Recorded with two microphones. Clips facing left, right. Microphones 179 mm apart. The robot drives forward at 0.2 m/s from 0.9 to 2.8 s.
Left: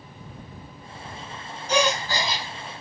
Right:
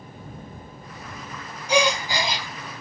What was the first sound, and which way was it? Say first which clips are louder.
A gasp: right 2 dB; 15° right (ahead or behind).